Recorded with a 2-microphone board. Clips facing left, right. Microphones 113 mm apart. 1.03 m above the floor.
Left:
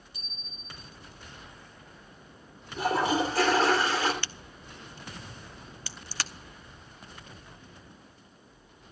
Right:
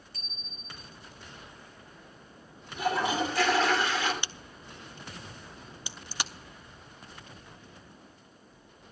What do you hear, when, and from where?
0.1 s a bicycle bell: 15° left (ahead or behind), 3.5 m
2.8 s a toilet flushing: 40° left (ahead or behind), 3 m
4.2 s a crack: 20° right (ahead or behind), 0.6 m